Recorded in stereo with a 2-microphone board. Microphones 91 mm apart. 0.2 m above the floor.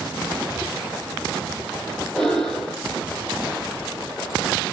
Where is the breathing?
5° left (ahead or behind), 3 m.